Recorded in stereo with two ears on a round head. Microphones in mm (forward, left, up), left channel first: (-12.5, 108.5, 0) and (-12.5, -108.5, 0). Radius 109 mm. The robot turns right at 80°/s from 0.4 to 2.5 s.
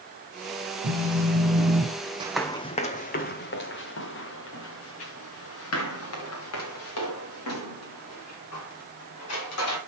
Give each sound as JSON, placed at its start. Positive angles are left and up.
{"t": 0.8, "sound": "a phone buzzing", "azimuth_deg": -90, "distance_m": 1.7}
{"t": 2.2, "sound": "running footsteps", "side_deg": -20, "distance_m": 0.8}